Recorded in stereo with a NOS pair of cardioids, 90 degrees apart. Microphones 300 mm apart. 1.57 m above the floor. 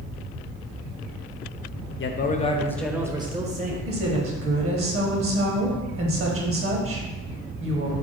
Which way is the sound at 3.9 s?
45° right.